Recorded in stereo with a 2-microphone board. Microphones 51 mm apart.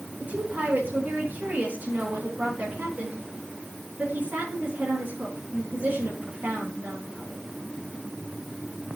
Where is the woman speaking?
35° right (ahead or behind), 9 m.